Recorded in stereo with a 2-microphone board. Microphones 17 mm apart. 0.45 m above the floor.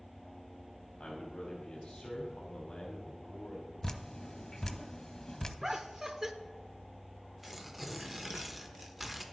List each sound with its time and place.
1.0 s a man speaking: 65° left (ahead or behind), 2.5 m
3.8 s dripping: 45° left (ahead or behind), 0.7 m
5.6 s laughter: 20° right (ahead or behind), 0.9 m
7.4 s tearing paper: 5° right (ahead or behind), 1.0 m